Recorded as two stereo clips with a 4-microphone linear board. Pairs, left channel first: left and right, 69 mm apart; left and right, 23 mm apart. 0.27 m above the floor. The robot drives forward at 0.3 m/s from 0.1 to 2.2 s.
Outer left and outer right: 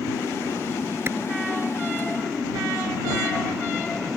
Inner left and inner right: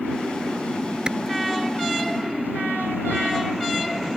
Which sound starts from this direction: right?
A clap, at 1.1 s.